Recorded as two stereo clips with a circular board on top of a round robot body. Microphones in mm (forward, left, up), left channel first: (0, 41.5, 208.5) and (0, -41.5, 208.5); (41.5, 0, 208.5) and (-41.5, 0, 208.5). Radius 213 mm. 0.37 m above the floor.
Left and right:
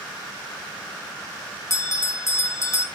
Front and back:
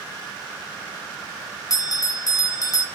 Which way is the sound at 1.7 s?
40° left.